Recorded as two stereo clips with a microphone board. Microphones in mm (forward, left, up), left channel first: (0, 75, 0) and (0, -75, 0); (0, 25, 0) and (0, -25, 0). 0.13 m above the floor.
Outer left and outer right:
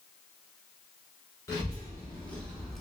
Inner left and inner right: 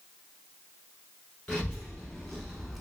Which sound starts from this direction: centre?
A child speaking, at 1.5 s.